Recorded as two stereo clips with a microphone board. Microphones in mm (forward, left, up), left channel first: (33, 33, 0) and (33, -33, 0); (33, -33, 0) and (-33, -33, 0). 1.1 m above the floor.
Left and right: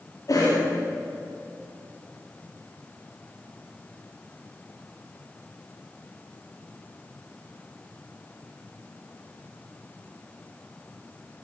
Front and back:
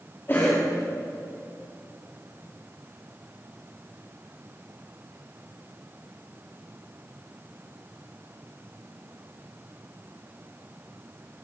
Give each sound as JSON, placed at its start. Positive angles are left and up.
{"t": 0.3, "sound": "a cough", "azimuth_deg": 55, "distance_m": 2.5}